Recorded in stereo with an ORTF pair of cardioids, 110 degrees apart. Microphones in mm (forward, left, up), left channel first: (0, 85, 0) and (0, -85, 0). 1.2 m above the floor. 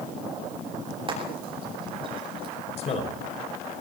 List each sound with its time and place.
1.1 s frying: 30° right, 9 m
2.8 s a man speaking: 40° left, 4.5 m